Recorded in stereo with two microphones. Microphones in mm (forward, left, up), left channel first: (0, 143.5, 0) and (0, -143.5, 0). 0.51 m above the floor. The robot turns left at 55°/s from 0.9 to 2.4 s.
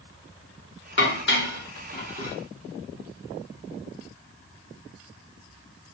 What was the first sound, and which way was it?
Dishes clattering, 40° left (ahead or behind).